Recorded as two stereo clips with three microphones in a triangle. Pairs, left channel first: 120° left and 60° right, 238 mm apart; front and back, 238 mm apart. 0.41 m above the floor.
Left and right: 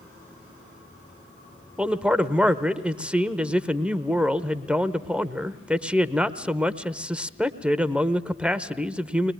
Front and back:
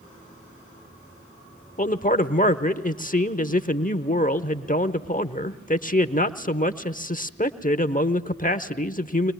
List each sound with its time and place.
1.8 s a man speaking: 20° left, 0.9 m